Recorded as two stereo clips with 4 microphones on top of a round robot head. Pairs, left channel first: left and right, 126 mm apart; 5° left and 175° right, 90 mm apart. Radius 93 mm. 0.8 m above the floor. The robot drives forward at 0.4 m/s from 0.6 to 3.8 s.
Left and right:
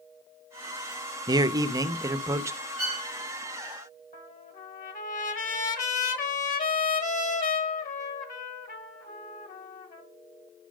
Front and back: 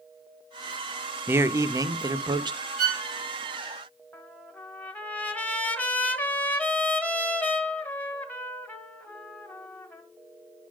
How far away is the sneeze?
I don't hear a sneeze.